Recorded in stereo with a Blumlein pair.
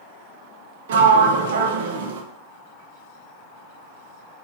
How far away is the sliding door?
About 0.5 m.